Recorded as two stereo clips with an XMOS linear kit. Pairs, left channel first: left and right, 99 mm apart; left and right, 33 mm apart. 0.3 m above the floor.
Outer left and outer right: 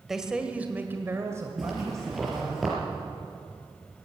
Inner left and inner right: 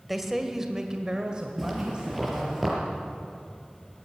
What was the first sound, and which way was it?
A woman speaking, 5° right (ahead or behind).